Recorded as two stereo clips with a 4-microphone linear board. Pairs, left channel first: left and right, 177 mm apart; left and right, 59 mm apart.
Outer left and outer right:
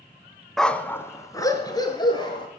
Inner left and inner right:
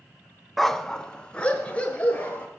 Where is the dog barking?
Centre (ahead or behind), 0.7 m; by 2.5 s 25° left (ahead or behind), 3 m.